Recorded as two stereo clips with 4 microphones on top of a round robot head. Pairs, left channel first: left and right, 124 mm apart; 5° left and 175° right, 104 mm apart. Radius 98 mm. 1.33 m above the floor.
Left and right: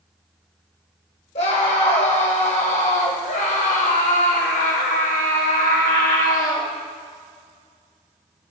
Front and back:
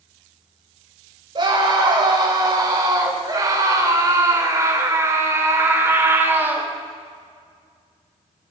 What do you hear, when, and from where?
1.4 s a scream: 140° left, 7.5 m; by 6.7 s 115° left, 6 m